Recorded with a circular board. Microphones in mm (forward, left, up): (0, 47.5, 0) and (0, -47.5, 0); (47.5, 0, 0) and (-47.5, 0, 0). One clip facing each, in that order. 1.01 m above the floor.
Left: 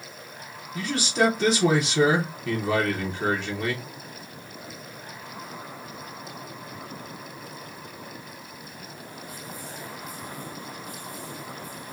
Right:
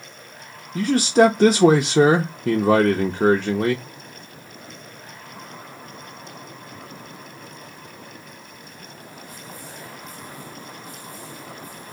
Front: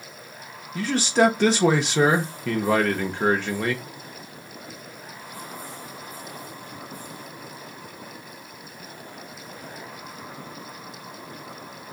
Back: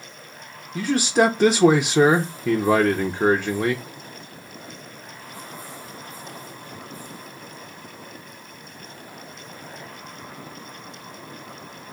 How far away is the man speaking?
About 0.6 m.